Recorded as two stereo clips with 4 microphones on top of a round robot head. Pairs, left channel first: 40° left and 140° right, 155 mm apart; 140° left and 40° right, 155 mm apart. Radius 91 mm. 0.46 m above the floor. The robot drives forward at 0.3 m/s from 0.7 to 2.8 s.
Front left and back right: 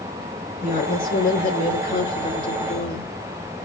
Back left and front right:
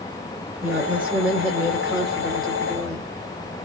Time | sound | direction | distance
0.6 | a woman speaking | 40° left | 2.5 m